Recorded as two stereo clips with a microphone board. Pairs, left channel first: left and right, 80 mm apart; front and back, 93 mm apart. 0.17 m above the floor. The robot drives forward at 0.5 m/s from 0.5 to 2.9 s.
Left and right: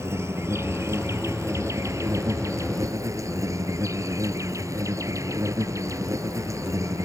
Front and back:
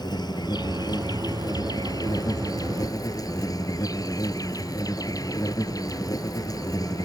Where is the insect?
35° right; by 7.1 s 45° right.